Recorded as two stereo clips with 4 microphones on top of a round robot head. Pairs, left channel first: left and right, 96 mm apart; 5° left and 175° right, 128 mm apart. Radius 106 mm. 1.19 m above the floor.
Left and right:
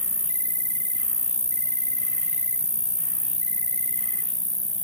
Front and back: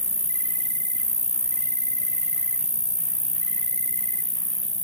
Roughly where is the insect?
Ahead left.